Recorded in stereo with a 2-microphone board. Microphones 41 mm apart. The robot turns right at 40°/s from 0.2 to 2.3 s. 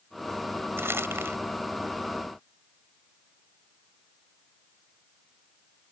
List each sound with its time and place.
0.8 s crumpling: 80° right; by 1.4 s 75° right (ahead or behind)